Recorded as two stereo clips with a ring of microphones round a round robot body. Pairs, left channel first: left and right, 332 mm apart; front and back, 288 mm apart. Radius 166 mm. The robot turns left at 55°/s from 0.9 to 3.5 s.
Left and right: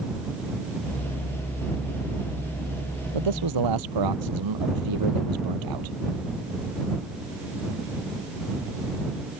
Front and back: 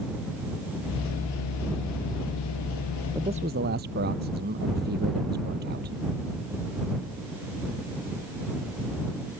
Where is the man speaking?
95° right; by 6.0 s 115° right.